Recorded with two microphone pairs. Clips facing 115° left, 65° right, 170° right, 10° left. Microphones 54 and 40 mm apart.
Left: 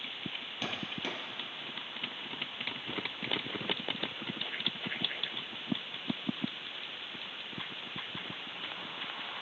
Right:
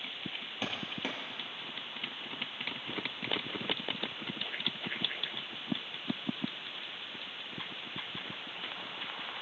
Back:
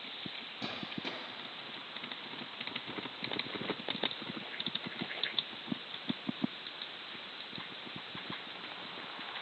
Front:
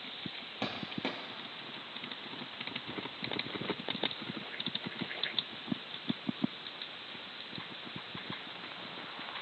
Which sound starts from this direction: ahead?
Footsteps, at 0.6 s.